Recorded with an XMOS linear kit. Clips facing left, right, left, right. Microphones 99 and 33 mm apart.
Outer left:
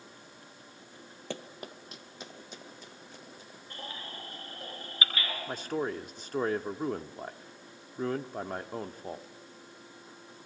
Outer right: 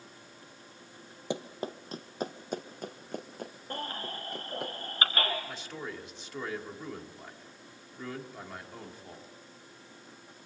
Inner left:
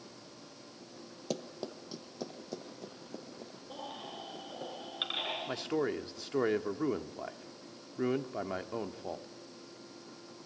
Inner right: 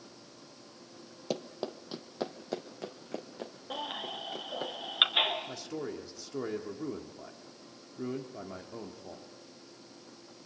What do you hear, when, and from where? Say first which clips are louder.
1.3 s running footsteps: outer right 6 dB, inner right 3 dB; 15° right (ahead or behind), 1.3 m; by 4.7 s 65° right (ahead or behind), 5 m
3.7 s a baby crying: outer right 5 dB, inner right 6 dB; 50° right (ahead or behind), 3.5 m
5.5 s a man speaking: outer left 8 dB, inner left 5 dB; 45° left (ahead or behind), 1.4 m